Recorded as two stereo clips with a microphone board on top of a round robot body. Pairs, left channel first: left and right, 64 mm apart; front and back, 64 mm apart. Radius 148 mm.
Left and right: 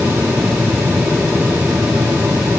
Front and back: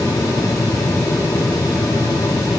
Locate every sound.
Only background noise.